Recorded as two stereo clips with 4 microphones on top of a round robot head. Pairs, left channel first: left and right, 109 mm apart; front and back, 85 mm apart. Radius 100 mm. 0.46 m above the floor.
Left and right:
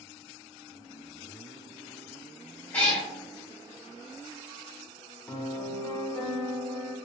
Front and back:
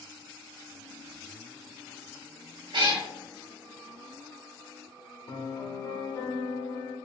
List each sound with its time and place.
2.7 s a cat meowing: 170° left, 0.9 m
5.3 s a piano: 25° left, 0.8 m